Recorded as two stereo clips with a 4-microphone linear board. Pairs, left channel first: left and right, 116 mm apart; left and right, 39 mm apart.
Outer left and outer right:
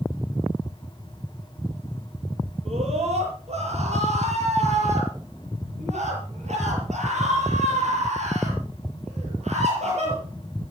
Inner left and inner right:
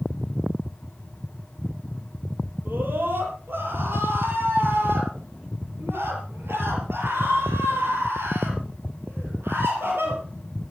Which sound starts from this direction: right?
A scream, at 2.6 s.